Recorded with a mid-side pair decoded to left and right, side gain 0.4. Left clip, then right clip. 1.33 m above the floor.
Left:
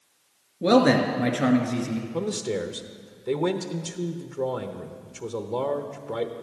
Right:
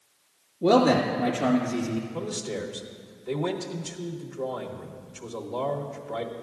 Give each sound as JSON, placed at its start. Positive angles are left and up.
{"t": 0.6, "sound": "a man speaking", "azimuth_deg": 70, "distance_m": 2.0}
{"t": 2.1, "sound": "a man speaking", "azimuth_deg": 60, "distance_m": 1.0}